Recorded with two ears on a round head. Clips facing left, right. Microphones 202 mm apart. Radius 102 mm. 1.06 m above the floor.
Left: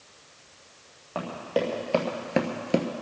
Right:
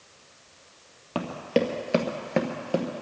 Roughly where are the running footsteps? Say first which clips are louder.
Right 3 dB; right.